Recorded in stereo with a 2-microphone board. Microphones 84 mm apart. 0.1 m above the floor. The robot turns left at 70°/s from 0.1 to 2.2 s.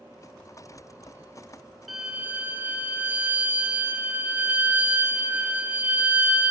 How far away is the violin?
About 1.1 m.